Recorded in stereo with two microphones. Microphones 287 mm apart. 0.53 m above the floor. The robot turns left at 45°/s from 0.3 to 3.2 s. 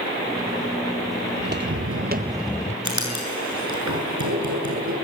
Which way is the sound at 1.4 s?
30° right (ahead or behind).